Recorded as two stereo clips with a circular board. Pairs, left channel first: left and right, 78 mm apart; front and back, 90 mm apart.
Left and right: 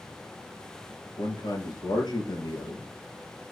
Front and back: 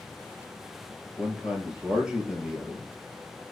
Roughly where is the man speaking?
Left.